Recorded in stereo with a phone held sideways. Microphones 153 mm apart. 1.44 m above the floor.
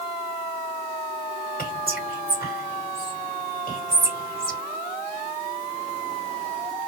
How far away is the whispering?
About 1.4 m.